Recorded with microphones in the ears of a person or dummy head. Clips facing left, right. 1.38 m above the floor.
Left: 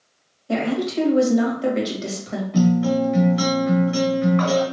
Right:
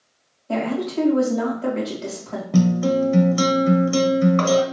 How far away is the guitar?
About 0.7 m.